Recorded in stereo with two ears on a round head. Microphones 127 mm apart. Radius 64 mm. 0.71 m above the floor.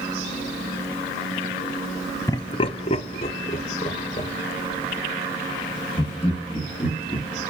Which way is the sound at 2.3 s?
20° left (ahead or behind).